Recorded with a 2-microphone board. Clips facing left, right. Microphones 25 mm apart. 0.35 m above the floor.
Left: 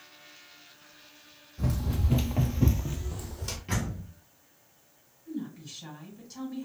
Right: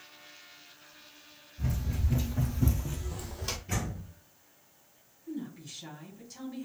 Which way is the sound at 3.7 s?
60° left (ahead or behind).